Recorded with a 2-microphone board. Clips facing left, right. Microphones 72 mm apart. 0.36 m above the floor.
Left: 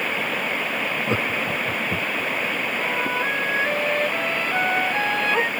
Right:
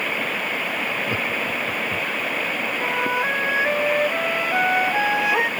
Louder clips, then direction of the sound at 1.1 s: Left 1 dB; 20° left (ahead or behind).